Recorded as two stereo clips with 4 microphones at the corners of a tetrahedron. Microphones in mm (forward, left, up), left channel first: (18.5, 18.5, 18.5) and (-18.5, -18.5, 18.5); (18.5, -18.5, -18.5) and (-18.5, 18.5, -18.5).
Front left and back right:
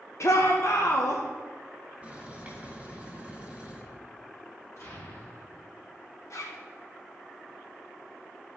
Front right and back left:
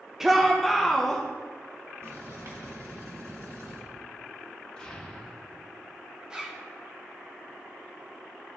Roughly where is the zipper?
Ahead left.